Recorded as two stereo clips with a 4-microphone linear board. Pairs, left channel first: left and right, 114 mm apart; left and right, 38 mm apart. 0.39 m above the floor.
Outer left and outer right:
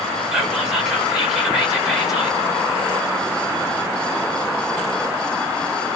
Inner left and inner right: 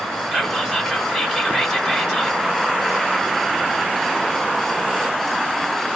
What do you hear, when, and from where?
0.3 s whispering: 5° right (ahead or behind), 1.4 m